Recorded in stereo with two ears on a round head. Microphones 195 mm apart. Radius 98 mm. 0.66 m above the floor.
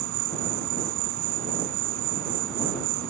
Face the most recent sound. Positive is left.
turn(degrees=-70)  # may be behind; listen again after turning